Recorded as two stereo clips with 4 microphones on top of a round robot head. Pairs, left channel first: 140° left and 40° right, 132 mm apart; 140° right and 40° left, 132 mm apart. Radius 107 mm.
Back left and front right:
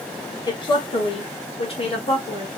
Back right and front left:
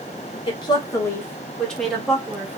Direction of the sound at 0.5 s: 175° right.